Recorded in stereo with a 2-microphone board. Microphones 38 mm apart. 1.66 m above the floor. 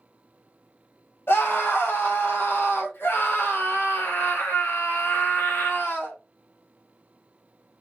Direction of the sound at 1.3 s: 85° left.